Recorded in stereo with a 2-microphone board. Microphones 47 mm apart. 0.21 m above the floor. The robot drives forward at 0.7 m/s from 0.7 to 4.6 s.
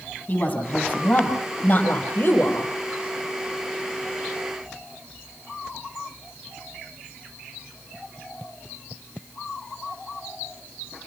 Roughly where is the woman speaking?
Left.